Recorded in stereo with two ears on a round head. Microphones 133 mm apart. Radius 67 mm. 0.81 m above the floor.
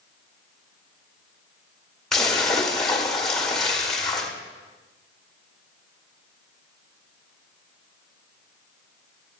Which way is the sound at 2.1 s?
5° left (ahead or behind).